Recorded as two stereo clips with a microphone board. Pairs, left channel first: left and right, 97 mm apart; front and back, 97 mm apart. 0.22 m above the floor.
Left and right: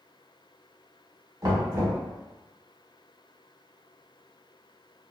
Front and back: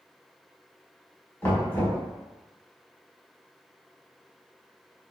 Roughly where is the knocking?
Ahead right.